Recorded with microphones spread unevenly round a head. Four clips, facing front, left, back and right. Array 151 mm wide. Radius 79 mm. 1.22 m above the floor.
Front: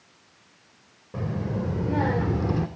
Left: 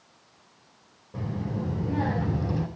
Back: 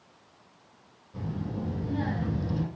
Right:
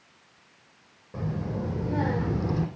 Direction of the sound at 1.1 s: 15° right.